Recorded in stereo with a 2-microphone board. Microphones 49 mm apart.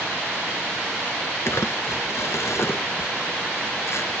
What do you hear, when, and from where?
1.5 s crumpling: 60° left (ahead or behind), 1.2 m